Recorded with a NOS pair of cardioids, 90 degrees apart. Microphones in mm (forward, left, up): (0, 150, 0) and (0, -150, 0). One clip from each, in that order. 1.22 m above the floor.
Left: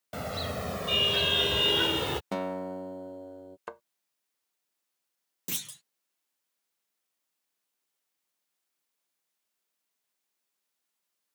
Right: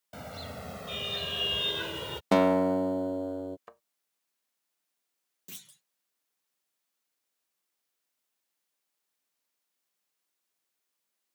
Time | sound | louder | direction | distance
0.1 | a car horn | left 7 dB | 50° left | ?
2.3 | a guitar | right 10 dB | 40° right | ?
3.7 | a thud | left 10 dB | 70° left | ?
5.5 | a clunk | left 12 dB | 60° left | ?